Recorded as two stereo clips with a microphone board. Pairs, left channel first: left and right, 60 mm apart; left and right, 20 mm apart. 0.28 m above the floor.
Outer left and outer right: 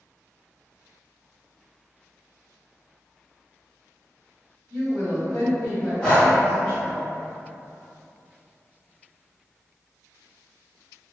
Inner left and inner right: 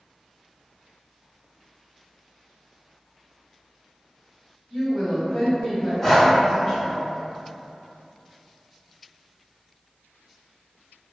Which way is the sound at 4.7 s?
20° left (ahead or behind).